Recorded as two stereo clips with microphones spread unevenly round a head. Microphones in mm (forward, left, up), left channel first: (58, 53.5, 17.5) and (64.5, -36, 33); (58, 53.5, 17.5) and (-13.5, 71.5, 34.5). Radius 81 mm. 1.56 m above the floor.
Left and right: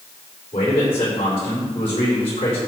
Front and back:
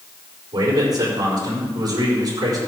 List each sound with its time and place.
0.5 s a man speaking: 135° left, 4.5 m